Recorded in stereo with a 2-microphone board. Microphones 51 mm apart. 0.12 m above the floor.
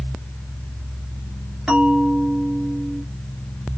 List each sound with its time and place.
1.7 s a bell: 20° right (ahead or behind), 2 m